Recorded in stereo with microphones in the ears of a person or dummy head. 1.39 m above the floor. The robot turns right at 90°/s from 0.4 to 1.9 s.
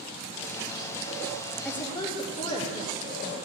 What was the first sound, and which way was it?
A woman speaking, centre (ahead or behind).